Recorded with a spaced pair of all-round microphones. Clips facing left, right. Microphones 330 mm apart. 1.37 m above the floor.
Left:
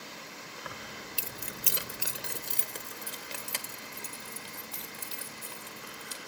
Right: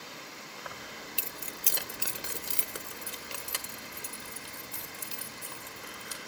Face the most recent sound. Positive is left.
turn(degrees=-20)  # may be behind; listen again after turning